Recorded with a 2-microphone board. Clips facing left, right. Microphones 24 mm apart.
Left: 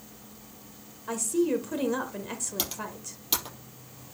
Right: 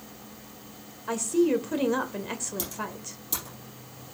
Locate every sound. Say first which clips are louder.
1.1 s a woman speaking: right 3 dB; 15° right (ahead or behind), 1.0 m
2.6 s typing on a keyboard: even; 55° left (ahead or behind), 4 m